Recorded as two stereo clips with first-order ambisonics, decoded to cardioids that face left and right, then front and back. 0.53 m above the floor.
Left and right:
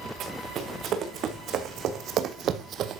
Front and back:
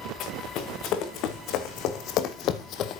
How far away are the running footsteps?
About 3 m.